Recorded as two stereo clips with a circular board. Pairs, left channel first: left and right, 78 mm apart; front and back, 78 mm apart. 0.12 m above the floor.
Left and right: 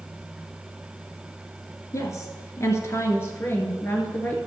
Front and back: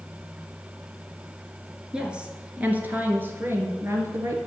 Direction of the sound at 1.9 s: 105° left.